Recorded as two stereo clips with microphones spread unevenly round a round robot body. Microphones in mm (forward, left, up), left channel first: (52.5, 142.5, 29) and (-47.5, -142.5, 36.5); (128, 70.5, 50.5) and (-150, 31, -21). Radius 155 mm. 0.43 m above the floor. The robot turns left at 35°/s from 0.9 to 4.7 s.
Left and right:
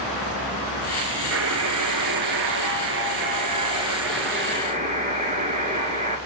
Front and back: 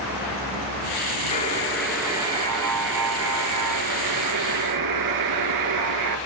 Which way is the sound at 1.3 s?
60° right.